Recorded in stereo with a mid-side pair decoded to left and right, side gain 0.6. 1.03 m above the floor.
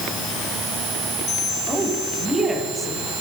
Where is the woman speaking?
25° right, 8 m.